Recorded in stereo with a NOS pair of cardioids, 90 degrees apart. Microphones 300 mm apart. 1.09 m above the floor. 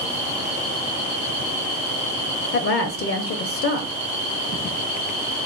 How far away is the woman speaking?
About 0.5 m.